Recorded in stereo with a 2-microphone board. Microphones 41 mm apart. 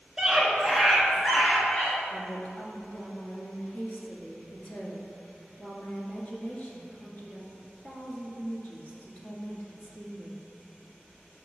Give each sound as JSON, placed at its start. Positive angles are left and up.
{"t": 0.2, "sound": "a scream", "side_deg": -10, "distance_m": 1.1}
{"t": 2.1, "sound": "a woman speaking", "side_deg": 40, "distance_m": 1.5}